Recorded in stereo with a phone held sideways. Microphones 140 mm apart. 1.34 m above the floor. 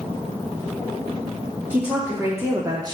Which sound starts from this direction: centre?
A woman speaking, at 1.7 s.